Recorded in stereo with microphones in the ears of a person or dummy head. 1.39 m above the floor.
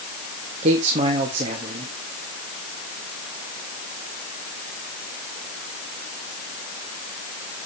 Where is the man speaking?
40° right (ahead or behind), 1.7 m.